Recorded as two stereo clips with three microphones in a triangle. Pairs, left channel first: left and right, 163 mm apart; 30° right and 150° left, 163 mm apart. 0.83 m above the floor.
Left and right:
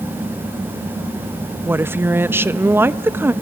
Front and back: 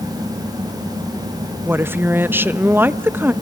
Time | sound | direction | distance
1.6 | a woman speaking | 150° right | 0.6 m